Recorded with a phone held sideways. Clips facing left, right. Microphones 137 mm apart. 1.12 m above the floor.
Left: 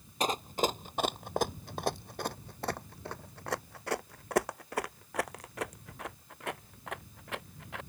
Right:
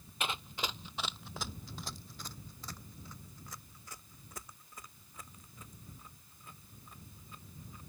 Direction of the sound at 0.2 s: 40° left (ahead or behind).